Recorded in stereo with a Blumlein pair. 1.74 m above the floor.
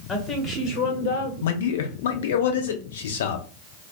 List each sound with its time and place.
0.1 s a woman speaking: 20° left, 1.4 m; by 1.3 s 60° left, 1.0 m
1.4 s a man speaking: 60° left, 0.8 m